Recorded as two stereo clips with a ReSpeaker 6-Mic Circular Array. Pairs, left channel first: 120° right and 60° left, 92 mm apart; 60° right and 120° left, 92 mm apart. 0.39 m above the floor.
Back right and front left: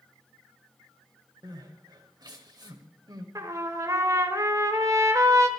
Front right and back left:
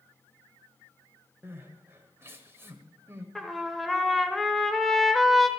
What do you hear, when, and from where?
1.4 s crying: 65° left, 1.4 m
3.4 s a trumpet: 30° left, 1.1 m